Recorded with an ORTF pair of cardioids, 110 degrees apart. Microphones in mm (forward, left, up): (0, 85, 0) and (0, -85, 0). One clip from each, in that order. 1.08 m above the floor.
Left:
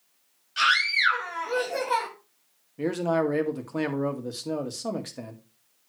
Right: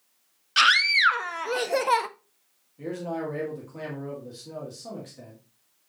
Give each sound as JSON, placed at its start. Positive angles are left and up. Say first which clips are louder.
{"t": 0.6, "sound": "a scream", "louder": "right 3 dB", "azimuth_deg": -65, "distance_m": 1.2}
{"t": 2.8, "sound": "a man speaking", "louder": "left 7 dB", "azimuth_deg": 60, "distance_m": 1.9}